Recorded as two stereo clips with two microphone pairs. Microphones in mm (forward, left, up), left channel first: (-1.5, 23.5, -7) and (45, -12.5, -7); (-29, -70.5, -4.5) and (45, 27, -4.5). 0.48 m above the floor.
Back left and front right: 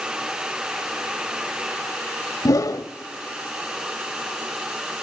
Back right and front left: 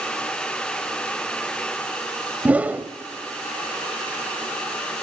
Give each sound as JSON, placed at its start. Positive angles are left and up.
{"t": 2.5, "sound": "a whoosh", "azimuth_deg": 130, "distance_m": 0.7}